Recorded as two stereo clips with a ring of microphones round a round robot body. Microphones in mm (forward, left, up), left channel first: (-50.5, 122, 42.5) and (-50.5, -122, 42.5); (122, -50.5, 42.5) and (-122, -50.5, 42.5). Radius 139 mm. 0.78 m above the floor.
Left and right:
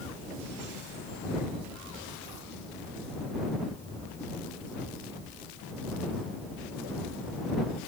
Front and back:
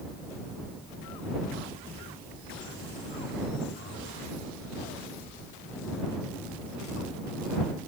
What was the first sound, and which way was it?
Only background noise.